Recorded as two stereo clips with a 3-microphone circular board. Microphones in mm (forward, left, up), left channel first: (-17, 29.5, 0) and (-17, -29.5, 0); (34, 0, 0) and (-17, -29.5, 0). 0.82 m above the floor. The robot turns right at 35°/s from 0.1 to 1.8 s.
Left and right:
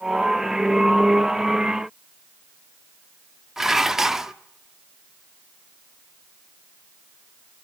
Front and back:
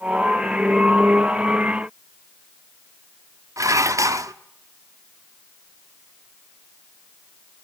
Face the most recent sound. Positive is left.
turn(degrees=-175)